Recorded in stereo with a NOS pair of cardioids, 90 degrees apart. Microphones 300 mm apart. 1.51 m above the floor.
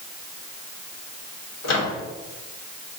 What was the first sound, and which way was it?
A microwave, 60° left.